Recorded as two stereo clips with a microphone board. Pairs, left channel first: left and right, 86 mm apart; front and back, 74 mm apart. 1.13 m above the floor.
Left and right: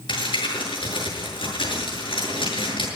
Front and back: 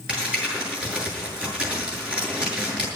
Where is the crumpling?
105° left, 7 m.